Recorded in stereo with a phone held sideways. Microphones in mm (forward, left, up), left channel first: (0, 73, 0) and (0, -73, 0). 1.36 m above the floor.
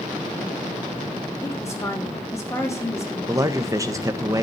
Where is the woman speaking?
20° left (ahead or behind), 3.5 m.